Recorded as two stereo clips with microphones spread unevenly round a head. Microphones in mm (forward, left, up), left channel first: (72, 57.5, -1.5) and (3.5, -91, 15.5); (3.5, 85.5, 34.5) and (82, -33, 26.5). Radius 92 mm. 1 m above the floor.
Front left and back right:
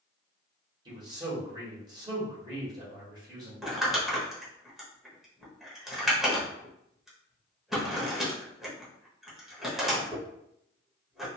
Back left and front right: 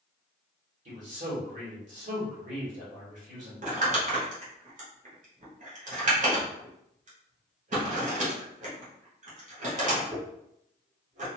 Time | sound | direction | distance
0.8 | a man speaking | 50° right | 1.7 m
3.6 | crumpling | 30° right | 1.0 m